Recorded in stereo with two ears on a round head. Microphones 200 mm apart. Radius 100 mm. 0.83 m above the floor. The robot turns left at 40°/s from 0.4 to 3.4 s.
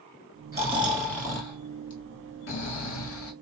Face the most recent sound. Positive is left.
turn(degrees=85)